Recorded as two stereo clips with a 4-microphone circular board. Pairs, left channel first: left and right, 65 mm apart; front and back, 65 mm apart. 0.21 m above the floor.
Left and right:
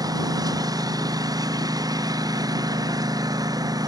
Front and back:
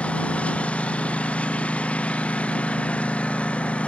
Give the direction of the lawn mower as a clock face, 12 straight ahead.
2 o'clock.